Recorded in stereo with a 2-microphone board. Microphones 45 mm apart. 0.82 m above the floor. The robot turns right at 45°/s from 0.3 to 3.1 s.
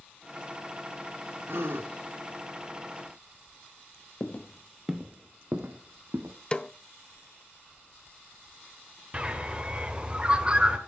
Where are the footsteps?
40° left (ahead or behind), 1.2 m; by 6.3 s 65° right (ahead or behind), 2.5 m.